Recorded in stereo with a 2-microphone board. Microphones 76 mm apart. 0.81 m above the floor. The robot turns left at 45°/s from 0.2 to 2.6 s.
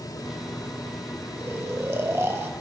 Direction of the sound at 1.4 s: 65° right.